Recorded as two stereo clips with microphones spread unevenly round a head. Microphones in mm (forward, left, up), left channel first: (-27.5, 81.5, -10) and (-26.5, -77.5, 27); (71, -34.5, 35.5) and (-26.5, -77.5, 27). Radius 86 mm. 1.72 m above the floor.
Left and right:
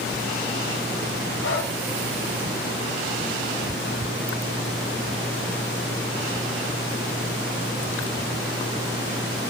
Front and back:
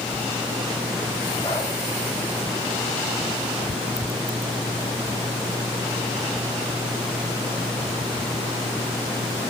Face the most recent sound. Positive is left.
turn(degrees=95)